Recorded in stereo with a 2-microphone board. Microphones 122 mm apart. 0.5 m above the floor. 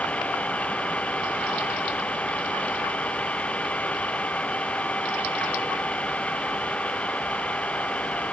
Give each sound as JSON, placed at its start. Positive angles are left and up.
{"t": 0.0, "sound": "an engine running", "side_deg": 10}